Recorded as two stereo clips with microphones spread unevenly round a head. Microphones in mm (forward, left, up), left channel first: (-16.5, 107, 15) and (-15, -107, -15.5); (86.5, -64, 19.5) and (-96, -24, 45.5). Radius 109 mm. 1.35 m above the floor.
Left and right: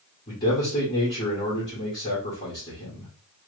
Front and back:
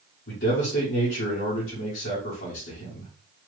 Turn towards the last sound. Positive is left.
turn(degrees=20)